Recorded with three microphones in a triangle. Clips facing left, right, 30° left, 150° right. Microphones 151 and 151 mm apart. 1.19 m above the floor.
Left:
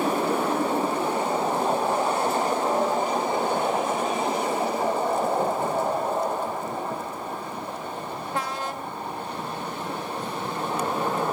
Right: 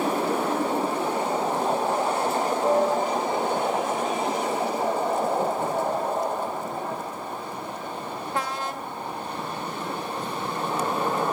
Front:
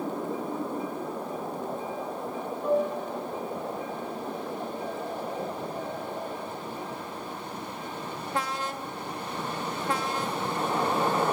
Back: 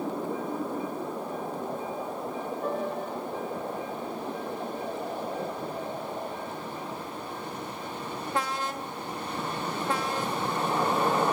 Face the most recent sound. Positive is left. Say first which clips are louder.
# right 2 dB, front 7 dB
turn(degrees=-125)